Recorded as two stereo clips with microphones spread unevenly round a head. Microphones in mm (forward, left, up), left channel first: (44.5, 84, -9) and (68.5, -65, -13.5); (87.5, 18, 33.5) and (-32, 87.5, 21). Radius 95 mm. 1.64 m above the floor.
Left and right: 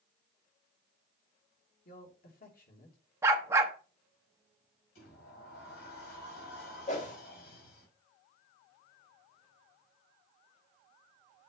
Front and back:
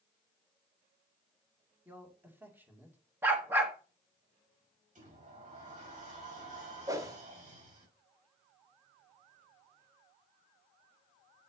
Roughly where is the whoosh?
Left.